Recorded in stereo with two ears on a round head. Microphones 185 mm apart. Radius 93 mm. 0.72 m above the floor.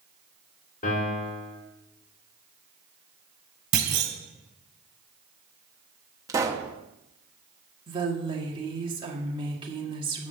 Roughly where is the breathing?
No breathing in this recording.